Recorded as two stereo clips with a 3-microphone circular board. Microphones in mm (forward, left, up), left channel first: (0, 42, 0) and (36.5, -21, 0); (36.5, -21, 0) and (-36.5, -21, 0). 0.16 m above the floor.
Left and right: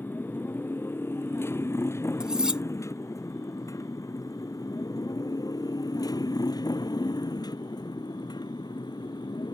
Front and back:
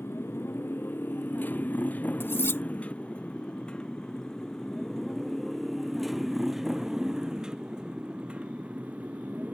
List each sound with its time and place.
0.0 s a motorcycle: 60° left; by 9.5 s 110° left
2.2 s cutlery clinking: 10° left